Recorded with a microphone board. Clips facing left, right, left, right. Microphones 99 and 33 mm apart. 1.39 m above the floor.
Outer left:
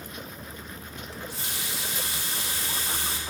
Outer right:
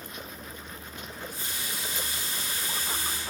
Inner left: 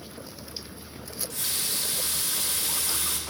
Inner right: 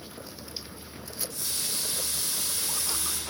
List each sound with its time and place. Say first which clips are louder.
1.1 s a running tap: outer left 2 dB, inner left 3 dB; 75° left (ahead or behind), 1.5 m